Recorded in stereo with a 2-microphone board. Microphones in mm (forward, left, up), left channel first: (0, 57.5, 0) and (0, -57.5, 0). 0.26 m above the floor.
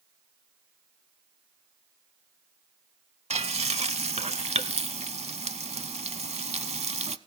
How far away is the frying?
About 0.6 m.